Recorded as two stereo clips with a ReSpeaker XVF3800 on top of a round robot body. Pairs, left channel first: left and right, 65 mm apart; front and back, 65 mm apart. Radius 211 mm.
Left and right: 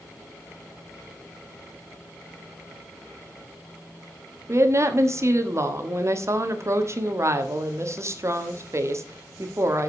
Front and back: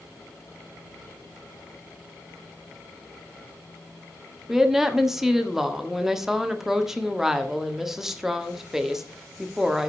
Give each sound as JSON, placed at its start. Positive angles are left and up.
{"t": 4.5, "sound": "a woman speaking", "azimuth_deg": -95, "distance_m": 1.7}